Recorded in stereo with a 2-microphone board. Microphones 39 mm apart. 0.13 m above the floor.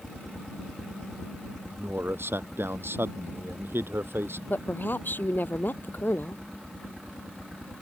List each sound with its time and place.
0.0 s a helicopter: 5° left (ahead or behind); by 7.8 s centre (ahead or behind)
1.7 s a man speaking: 70° right (ahead or behind)
4.5 s a woman speaking: 55° left (ahead or behind)